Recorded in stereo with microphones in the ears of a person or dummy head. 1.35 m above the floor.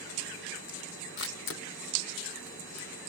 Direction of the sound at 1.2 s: 55° left (ahead or behind).